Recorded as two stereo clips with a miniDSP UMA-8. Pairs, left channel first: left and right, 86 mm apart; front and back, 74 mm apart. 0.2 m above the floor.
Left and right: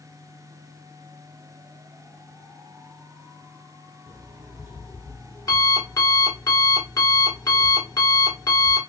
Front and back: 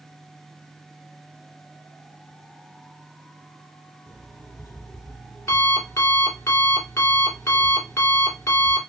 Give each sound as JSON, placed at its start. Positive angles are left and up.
{"t": 4.1, "sound": "an alarm clock", "azimuth_deg": 45, "distance_m": 1.5}